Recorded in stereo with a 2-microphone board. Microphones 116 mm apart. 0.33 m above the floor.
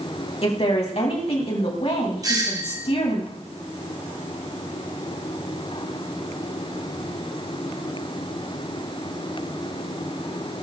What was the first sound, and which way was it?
A woman speaking, 60° left (ahead or behind).